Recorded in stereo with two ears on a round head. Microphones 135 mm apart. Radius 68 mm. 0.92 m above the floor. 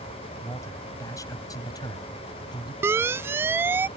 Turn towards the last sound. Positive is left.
turn(degrees=-15)  # may be behind; listen again after turning